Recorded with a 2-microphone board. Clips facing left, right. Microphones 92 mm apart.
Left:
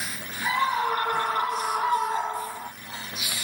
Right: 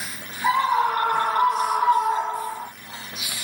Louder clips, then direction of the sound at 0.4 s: Right 5 dB; 70° right (ahead or behind).